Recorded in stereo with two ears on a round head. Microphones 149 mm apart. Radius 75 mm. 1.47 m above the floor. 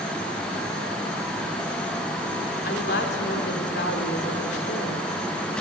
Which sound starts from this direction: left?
A woman speaking, at 2.6 s.